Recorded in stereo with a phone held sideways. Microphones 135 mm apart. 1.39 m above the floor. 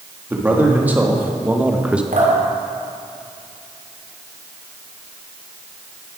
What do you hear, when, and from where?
0.3 s a man speaking: 15° right (ahead or behind), 1.9 m; by 2.0 s 10° right (ahead or behind), 1.0 m
2.1 s dripping: 75° right (ahead or behind), 3 m